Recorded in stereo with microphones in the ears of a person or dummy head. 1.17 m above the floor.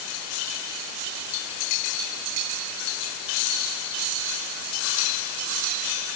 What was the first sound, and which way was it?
Only background noise.